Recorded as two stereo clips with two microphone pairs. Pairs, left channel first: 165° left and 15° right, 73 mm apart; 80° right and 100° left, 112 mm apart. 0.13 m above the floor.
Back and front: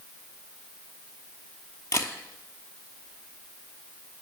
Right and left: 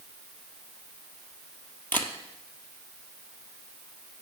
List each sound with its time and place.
1.9 s a camera shutter: 150° right, 1.0 m